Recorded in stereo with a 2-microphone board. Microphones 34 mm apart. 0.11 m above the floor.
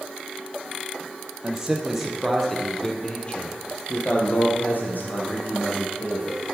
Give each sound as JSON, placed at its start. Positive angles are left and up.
{"t": 1.4, "sound": "a man speaking", "side_deg": -20, "distance_m": 3.0}